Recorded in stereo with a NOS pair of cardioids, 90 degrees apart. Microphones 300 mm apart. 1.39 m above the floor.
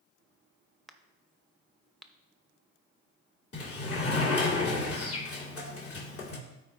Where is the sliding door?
50° left, 2.5 m.